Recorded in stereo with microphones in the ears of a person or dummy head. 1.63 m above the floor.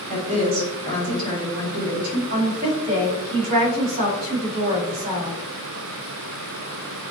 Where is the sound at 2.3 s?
40° right (ahead or behind), 3.5 m.